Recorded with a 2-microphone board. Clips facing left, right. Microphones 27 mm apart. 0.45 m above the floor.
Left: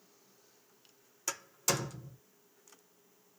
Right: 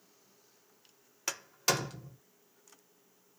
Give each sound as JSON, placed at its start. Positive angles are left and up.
{"t": 1.3, "sound": "a door slam", "side_deg": -35, "distance_m": 0.9}